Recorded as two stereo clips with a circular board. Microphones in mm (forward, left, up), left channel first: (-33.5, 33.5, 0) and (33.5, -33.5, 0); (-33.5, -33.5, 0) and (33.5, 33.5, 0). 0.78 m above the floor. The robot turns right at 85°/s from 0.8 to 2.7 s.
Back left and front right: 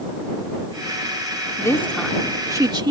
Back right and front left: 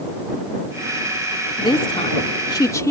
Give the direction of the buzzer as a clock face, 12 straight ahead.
I don't hear a buzzer.